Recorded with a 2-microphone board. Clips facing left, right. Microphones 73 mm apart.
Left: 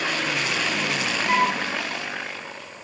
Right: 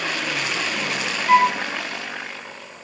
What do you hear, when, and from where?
1.3 s a flute: 20° right (ahead or behind), 0.6 m